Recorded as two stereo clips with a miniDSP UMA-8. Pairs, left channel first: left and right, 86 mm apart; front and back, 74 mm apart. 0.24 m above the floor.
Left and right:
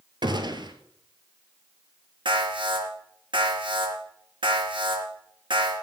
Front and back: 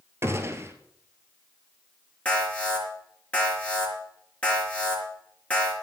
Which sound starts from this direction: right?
An alarm, at 2.2 s.